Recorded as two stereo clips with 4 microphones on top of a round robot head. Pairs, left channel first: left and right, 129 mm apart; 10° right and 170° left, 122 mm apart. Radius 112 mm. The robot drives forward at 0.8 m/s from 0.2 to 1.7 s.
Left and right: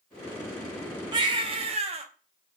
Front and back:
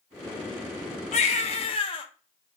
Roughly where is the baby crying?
Ahead right.